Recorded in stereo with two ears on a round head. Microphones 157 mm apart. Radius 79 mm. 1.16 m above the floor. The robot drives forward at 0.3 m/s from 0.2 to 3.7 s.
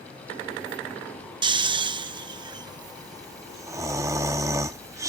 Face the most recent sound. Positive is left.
turn(degrees=-15)  # may be behind; listen again after turning